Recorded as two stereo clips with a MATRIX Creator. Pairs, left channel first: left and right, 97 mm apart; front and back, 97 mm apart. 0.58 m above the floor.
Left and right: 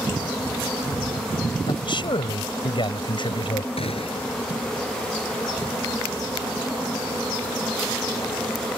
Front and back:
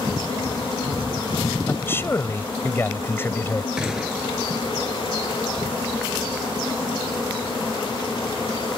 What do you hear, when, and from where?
1.7 s a man speaking: 65° left
3.8 s a gunshot: 95° left